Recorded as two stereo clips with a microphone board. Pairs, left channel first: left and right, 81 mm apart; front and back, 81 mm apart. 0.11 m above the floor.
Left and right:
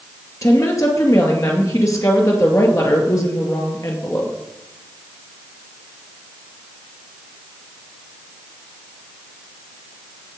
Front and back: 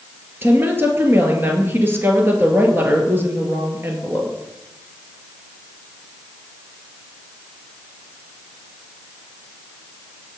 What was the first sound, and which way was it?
A woman speaking, 125° left.